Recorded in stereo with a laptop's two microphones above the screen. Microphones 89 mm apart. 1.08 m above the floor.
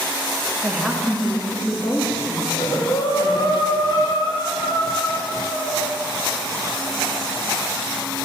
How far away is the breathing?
About 0.6 m.